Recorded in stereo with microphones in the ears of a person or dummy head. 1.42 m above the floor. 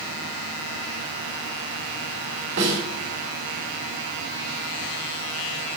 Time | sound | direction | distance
2.6 | a snare drum | 65° right (ahead or behind) | 3.5 m